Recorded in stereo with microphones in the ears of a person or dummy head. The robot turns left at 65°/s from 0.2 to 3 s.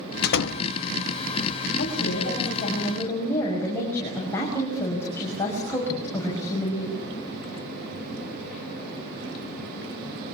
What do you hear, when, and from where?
0.2 s a door slam: 55° left (ahead or behind), 1.0 m; by 0.6 s 75° left (ahead or behind), 1.0 m
1.8 s a woman speaking: 95° left, 6.5 m; by 7.0 s 15° left, 6.5 m